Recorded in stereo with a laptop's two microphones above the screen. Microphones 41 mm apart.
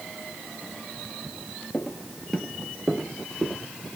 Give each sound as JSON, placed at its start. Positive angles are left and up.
{"t": 1.7, "sound": "footsteps", "side_deg": 25, "distance_m": 1.2}